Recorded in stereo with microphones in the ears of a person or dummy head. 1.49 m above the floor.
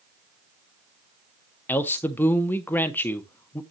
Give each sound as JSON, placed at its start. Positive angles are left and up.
{"t": 1.7, "sound": "a man speaking", "side_deg": 10, "distance_m": 0.8}